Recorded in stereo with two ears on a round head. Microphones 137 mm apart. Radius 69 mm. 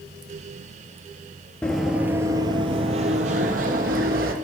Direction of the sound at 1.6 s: 5° left (ahead or behind).